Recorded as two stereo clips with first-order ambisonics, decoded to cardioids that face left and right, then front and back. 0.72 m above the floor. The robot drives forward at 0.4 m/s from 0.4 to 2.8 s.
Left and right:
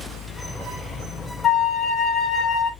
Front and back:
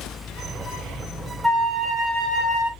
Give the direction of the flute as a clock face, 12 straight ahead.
8 o'clock.